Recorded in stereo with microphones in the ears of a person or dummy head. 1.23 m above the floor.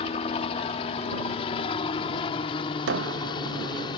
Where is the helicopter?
35° left (ahead or behind); by 4.0 s 25° left (ahead or behind).